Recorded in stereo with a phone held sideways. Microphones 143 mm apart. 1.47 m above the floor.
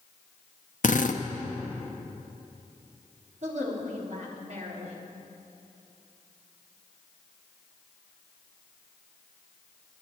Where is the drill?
65° left (ahead or behind), 0.9 m.